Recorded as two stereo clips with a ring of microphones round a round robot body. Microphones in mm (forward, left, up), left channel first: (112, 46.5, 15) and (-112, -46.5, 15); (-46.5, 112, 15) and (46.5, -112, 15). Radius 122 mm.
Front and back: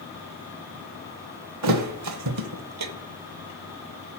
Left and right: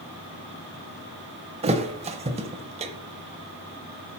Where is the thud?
135° right, 0.9 m.